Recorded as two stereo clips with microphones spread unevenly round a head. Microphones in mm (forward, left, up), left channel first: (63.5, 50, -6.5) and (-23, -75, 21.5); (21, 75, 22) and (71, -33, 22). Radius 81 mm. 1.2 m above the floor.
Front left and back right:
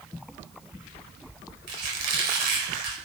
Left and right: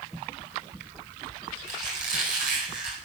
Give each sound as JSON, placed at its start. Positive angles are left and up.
{"t": 1.7, "sound": "a squeak", "azimuth_deg": -105, "distance_m": 4.5}